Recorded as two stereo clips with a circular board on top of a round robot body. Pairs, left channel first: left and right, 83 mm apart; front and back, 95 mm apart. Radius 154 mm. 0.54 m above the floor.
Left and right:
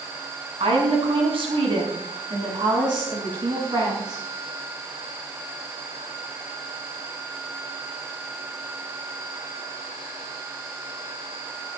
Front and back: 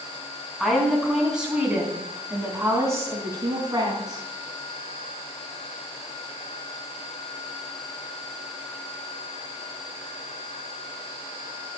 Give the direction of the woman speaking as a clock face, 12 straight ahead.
3 o'clock.